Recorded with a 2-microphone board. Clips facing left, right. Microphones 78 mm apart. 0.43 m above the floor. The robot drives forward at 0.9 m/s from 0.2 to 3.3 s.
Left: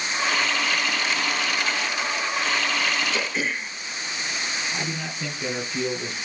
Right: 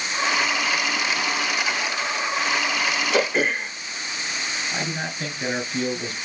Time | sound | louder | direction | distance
3.1 | throat clearing | right 6 dB | 60° right (ahead or behind) | 0.6 m
4.7 | a man speaking | right 2 dB | 65° right (ahead or behind) | 3.5 m